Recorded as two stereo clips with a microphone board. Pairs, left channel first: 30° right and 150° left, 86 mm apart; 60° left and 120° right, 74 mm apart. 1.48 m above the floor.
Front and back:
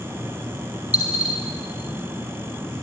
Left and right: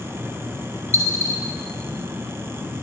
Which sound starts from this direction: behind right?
A dropped coin, at 0.9 s.